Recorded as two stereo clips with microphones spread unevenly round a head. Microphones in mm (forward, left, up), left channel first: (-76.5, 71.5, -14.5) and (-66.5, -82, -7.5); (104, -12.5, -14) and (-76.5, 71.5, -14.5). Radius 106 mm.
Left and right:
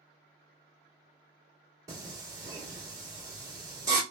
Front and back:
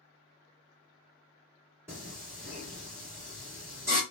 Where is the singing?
135° right, 1.4 m.